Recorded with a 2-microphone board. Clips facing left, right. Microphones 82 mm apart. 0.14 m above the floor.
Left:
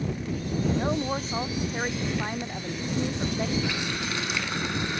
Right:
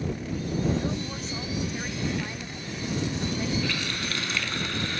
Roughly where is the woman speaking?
Left.